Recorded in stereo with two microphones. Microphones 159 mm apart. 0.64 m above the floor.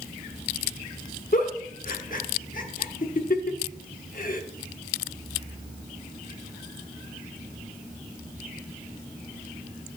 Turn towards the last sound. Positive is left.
turn(degrees=60)  # may be behind; listen again after turning